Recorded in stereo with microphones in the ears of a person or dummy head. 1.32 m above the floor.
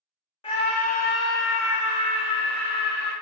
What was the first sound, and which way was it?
A scream, 25° left (ahead or behind).